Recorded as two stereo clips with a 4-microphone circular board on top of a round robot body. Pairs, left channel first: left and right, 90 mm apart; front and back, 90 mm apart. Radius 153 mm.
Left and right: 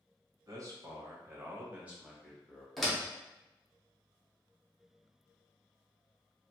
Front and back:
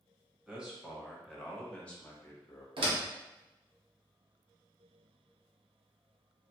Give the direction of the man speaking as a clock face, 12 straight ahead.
4 o'clock.